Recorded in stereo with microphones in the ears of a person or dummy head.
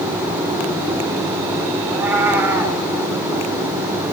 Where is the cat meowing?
5° right (ahead or behind), 2.5 m.